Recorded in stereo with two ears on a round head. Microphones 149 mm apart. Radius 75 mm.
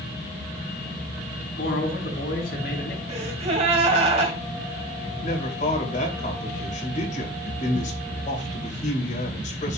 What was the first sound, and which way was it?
A man speaking, 65° left (ahead or behind).